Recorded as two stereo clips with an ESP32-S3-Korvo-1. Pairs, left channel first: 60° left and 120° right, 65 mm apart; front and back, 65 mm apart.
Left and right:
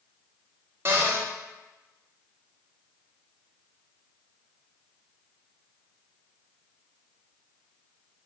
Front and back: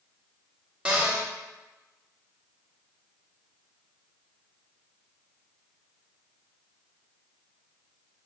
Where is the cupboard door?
120° right, 1.0 m.